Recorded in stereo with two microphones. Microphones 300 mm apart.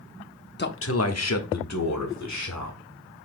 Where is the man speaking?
35° left (ahead or behind), 0.6 m; by 2.8 s 70° left (ahead or behind), 2.0 m.